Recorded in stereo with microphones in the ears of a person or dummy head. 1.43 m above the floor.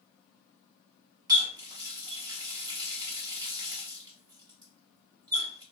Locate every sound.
1.3 s a running tap: 20° right (ahead or behind), 0.8 m